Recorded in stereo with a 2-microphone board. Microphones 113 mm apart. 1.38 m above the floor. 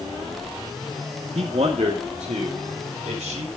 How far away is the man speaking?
About 1.8 m.